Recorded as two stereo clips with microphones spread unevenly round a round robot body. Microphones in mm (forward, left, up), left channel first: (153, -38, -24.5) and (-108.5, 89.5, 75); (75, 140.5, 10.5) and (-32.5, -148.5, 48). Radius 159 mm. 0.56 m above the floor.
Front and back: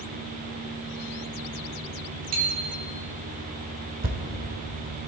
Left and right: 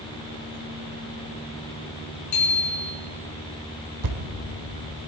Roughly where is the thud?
Behind right.